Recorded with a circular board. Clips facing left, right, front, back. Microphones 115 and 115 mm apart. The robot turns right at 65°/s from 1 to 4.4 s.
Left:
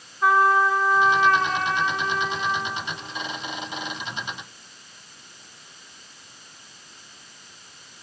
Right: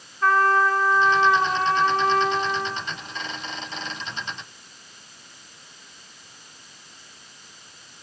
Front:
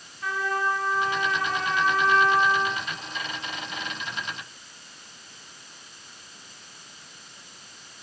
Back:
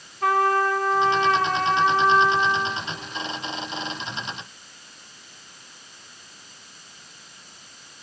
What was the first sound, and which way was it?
A trumpet, 170° left.